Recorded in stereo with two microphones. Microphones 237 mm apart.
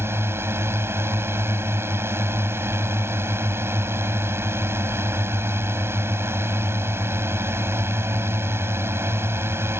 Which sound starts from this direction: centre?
A drone, at 0.0 s.